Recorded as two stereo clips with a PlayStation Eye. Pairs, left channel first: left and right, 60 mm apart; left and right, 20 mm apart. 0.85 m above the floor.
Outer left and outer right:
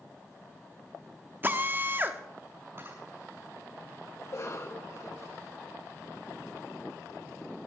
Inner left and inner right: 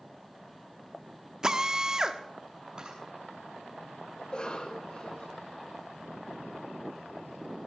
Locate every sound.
1.4 s a drill: 35° right (ahead or behind), 1.0 m
2.8 s a camera shutter: 40° right (ahead or behind), 8.5 m
4.2 s a cough: 55° left (ahead or behind), 3.5 m